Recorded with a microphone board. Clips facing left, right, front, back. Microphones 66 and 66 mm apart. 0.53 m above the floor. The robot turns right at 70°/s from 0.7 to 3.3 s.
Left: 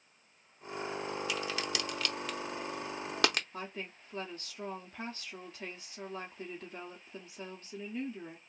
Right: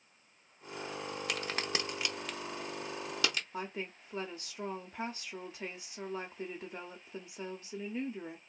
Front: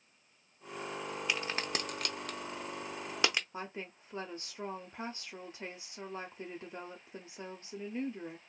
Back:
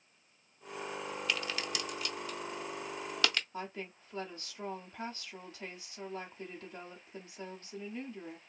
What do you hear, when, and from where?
1.3 s a crack: 70° right, 0.6 m; by 3.4 s 70° left, 0.6 m
3.5 s a woman speaking: 30° right, 1.1 m